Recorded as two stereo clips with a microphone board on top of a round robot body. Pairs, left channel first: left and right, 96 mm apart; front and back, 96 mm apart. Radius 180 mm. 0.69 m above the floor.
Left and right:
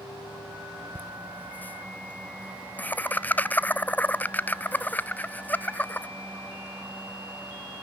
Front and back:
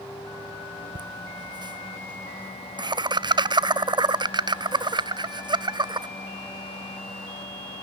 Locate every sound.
0.9 s laughter: 160° left, 0.6 m